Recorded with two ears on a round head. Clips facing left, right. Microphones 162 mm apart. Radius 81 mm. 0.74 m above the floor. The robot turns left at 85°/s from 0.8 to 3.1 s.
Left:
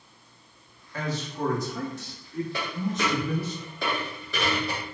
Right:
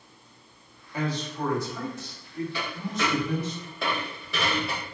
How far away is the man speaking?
About 1.0 m.